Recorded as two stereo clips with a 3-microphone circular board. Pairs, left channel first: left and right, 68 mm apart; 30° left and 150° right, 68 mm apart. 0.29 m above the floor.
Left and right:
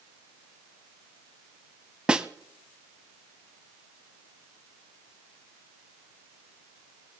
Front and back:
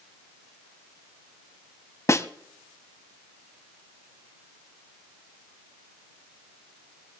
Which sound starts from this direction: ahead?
A snare drum, at 2.1 s.